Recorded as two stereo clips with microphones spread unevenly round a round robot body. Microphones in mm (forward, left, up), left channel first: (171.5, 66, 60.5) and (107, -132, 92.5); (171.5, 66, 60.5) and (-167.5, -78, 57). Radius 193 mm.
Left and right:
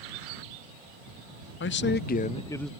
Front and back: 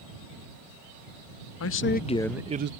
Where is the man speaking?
75° left; by 2.7 s 155° left.